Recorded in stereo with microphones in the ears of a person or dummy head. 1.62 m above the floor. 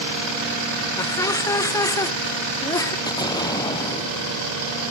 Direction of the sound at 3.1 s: 25° left (ahead or behind).